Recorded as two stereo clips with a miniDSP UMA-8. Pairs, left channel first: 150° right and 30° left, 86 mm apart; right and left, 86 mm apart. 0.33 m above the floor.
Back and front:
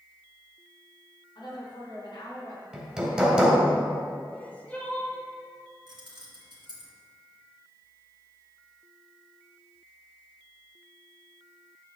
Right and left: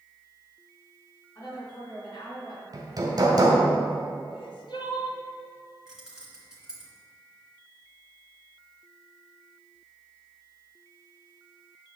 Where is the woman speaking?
130° right, 3.5 m; by 2.6 s 120° right, 4 m.